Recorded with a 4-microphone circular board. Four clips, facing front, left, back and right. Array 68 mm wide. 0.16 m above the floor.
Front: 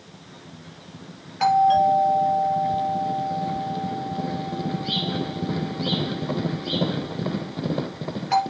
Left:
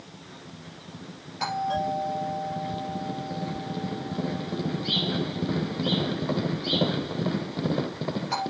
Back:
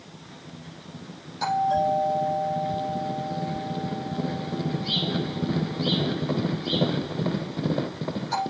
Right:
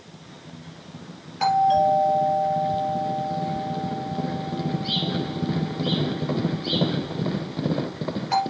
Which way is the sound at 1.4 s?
5° right.